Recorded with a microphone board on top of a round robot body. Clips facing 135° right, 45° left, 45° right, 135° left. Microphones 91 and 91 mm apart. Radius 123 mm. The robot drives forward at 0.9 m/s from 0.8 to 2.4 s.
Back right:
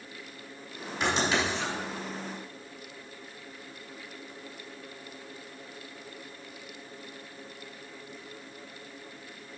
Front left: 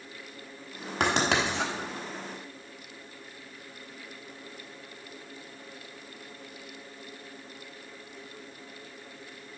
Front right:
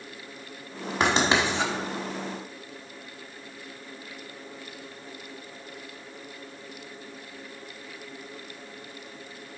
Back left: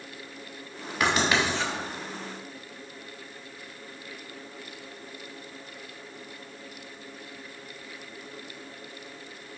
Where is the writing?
20° left, 1.5 m; by 1.7 s 30° left, 1.0 m.